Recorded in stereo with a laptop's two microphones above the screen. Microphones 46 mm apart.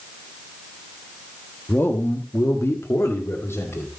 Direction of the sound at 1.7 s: 50° left (ahead or behind).